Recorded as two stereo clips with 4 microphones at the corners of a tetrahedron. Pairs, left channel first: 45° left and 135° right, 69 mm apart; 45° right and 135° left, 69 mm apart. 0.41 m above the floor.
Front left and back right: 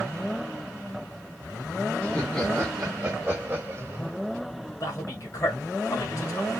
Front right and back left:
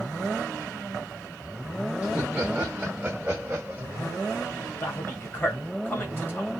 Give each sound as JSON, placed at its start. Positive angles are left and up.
{"t": 2.0, "sound": "laughter", "azimuth_deg": 90, "distance_m": 1.3}
{"t": 4.8, "sound": "a man speaking", "azimuth_deg": 10, "distance_m": 1.5}